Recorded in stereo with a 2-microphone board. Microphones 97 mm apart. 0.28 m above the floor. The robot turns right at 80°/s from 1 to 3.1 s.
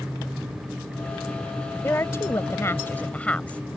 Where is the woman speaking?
50° left; by 3.6 s 150° left.